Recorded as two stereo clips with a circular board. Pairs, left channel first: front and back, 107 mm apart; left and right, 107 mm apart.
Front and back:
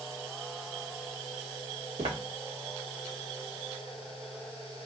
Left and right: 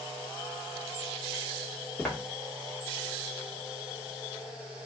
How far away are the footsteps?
About 1.5 m.